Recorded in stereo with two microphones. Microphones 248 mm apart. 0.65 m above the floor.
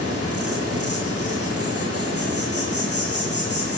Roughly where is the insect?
Right.